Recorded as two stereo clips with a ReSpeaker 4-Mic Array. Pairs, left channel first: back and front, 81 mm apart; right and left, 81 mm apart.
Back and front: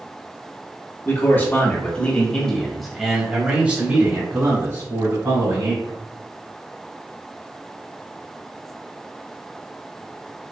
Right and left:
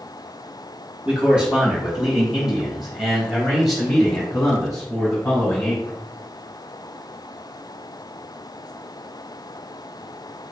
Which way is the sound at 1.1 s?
160° left.